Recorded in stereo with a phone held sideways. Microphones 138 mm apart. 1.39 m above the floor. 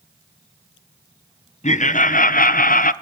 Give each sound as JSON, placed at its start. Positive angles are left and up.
{"t": 1.6, "sound": "laughter", "side_deg": 55, "distance_m": 0.8}